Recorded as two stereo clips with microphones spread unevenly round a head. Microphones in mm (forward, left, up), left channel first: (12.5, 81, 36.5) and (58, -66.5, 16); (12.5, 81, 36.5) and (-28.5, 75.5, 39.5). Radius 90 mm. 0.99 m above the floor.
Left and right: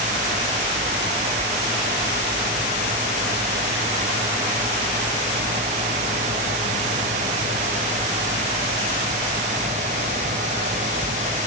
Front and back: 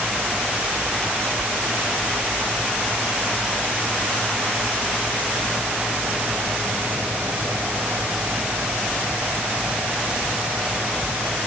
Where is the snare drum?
No snare drum in this recording.